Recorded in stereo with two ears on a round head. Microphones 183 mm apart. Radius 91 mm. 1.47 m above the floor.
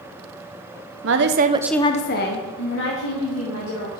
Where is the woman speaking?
65° right (ahead or behind), 0.9 m; by 4.0 s 75° left (ahead or behind), 3 m.